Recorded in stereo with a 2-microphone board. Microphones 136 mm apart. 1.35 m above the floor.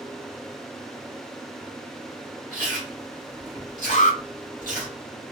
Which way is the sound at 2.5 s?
85° right.